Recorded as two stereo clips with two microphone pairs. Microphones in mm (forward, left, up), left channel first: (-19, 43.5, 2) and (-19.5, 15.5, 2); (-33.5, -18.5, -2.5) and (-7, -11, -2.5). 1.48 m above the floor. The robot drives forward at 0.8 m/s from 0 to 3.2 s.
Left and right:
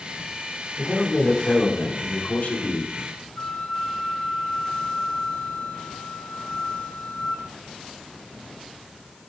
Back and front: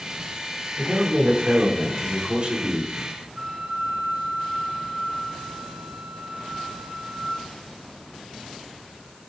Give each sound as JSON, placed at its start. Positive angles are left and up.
{"t": 0.8, "sound": "a man speaking", "azimuth_deg": 45, "distance_m": 4.5}
{"t": 3.4, "sound": "a flute", "azimuth_deg": 70, "distance_m": 4.5}